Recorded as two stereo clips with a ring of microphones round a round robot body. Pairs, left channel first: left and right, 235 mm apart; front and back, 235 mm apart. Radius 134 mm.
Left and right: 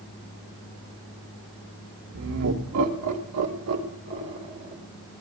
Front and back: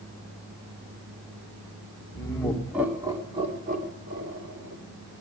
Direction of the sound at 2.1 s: 75° right.